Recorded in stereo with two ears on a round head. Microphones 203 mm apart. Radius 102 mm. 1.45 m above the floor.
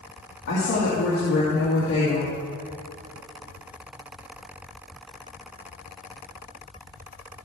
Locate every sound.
0.5 s a woman speaking: 55° left (ahead or behind), 1.9 m